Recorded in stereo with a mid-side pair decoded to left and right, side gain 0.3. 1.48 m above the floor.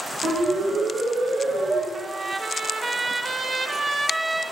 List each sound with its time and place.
0.2 s a siren: 70° right, 8.5 m
1.9 s a trumpet: 40° right, 1.8 m